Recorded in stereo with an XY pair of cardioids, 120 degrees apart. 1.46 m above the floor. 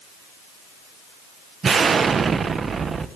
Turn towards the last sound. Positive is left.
turn(degrees=-35)